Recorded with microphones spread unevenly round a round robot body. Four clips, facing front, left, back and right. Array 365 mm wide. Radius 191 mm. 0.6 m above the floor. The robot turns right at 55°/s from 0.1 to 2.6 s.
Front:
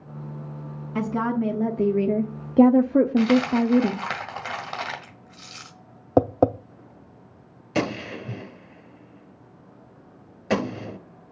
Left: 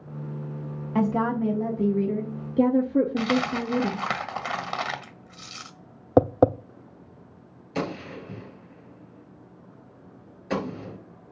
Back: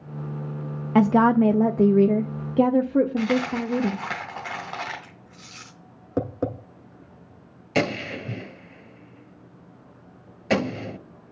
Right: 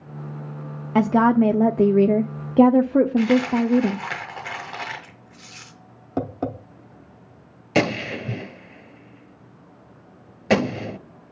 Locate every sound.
0.9 s a woman speaking: 130° right, 1.1 m; by 4.0 s 40° right, 1.1 m
3.2 s a dropped coin: 75° left, 1.9 m
6.2 s tapping: 20° left, 0.7 m
7.8 s a gunshot: 90° right, 1.9 m